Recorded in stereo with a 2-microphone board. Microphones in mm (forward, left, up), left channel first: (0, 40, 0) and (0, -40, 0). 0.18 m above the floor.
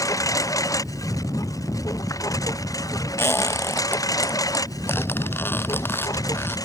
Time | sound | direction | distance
0.0 | a lawn mower | 45° left (ahead or behind) | ?
3.2 | a squeak | 30° left (ahead or behind) | ?